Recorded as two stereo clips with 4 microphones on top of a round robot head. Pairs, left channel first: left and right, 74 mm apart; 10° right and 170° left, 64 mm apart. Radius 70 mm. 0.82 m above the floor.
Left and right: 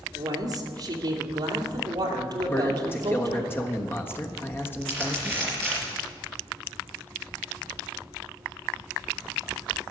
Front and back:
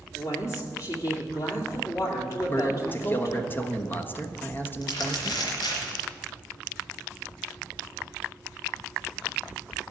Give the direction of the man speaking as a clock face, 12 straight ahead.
11 o'clock.